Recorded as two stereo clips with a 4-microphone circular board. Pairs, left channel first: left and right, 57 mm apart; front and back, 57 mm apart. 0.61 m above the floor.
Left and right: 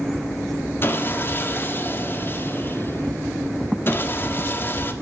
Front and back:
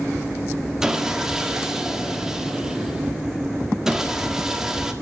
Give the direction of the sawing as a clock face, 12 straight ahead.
8 o'clock.